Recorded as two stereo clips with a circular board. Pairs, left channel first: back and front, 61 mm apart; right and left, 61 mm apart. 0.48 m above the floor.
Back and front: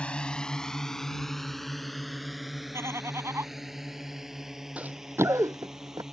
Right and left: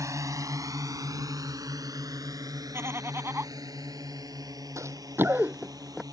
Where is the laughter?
45° left.